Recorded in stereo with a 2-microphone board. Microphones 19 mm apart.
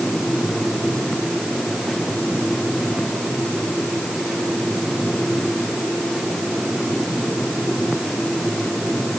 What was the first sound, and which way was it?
Only background noise.